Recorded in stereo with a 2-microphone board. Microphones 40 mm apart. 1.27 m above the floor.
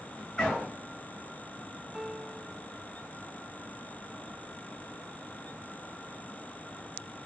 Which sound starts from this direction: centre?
A piano, at 1.9 s.